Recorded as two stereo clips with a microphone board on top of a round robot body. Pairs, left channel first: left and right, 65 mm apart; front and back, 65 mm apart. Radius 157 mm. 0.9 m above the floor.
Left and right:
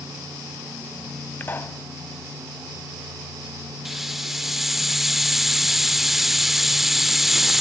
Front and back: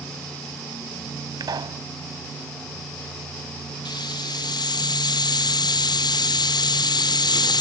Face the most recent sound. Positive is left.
turn(degrees=-5)